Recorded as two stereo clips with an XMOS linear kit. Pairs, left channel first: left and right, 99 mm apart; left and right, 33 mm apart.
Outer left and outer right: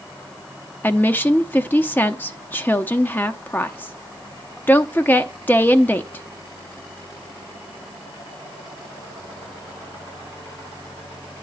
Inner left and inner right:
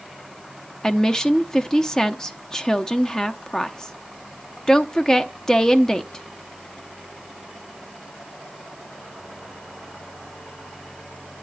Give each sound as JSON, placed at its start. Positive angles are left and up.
{"t": 0.8, "sound": "a woman speaking", "side_deg": 20, "distance_m": 0.7}